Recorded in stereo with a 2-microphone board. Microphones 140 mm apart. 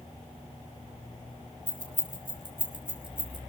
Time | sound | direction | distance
1.7 | keys jangling | 40° right (ahead or behind) | 3 m